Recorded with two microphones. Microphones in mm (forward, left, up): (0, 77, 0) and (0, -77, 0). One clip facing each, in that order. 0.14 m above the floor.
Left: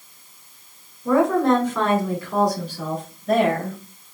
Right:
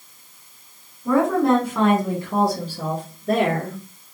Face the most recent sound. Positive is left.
turn(degrees=-45)  # may be behind; listen again after turning